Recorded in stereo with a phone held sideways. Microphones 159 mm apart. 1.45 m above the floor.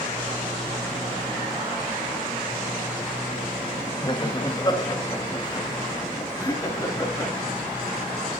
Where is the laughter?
30° left (ahead or behind), 2 m; by 7.3 s 25° left (ahead or behind), 3.5 m.